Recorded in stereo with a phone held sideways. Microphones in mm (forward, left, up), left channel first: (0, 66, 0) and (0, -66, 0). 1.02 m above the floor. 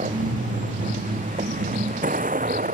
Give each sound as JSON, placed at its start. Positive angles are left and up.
{"t": 0.0, "sound": "a vehicle", "side_deg": -70}